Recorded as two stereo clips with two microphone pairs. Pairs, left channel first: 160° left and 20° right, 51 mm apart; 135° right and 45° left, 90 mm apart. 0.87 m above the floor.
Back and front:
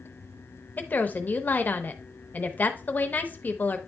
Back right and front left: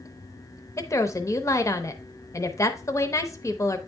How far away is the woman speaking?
About 0.7 m.